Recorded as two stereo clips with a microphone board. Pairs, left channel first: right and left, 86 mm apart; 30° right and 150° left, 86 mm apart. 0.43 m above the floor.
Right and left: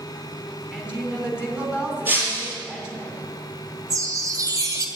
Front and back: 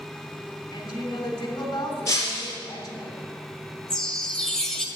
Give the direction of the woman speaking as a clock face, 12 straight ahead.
12 o'clock.